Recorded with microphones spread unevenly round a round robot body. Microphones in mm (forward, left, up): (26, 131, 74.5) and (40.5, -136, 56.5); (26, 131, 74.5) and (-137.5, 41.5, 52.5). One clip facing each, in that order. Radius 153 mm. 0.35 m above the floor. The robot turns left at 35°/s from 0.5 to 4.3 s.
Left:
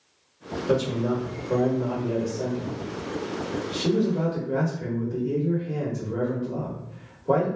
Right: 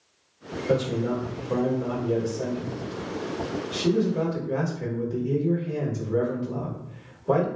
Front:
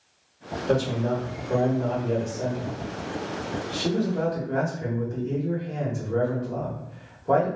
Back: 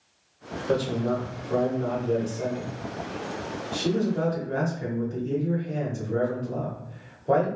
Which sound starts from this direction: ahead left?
A man speaking, at 0.7 s.